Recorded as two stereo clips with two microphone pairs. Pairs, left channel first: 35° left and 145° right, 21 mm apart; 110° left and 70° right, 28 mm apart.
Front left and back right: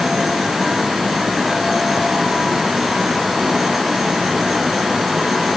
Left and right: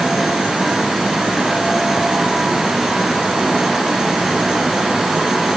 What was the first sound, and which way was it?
Only background noise.